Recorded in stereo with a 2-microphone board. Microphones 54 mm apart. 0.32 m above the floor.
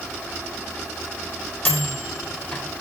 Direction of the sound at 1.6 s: 35° left (ahead or behind).